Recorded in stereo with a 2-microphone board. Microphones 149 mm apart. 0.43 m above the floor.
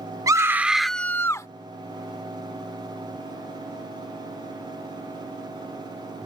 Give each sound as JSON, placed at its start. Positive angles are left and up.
{"t": 0.3, "sound": "a scream", "side_deg": -20}